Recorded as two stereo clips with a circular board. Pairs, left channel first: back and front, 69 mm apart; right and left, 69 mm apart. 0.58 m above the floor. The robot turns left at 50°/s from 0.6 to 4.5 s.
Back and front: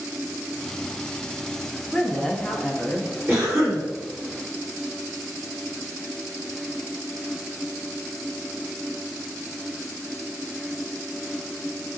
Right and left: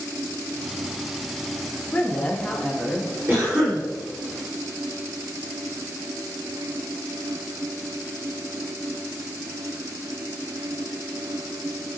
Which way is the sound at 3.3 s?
40° left.